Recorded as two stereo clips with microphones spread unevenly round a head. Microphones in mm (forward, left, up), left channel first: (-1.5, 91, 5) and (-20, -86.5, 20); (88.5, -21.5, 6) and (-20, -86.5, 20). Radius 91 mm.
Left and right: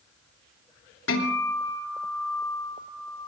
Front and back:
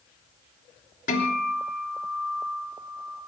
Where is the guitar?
65° left, 3 m.